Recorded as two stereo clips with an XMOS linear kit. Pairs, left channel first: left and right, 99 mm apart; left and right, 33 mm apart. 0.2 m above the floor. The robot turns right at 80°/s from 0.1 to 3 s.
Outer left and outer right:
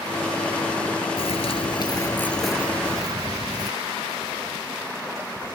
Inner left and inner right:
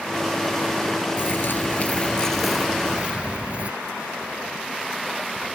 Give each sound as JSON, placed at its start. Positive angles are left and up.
{"t": 1.2, "sound": "a bird", "azimuth_deg": 75}